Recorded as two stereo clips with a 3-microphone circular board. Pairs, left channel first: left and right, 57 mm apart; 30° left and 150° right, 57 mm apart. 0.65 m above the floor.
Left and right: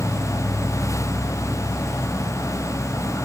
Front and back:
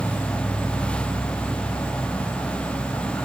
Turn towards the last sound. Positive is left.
turn(degrees=55)